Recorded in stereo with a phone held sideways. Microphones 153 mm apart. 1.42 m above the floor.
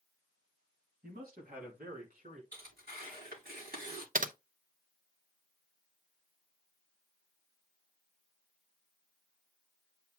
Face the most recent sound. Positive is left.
turn(degrees=-65)  # may be behind; listen again after turning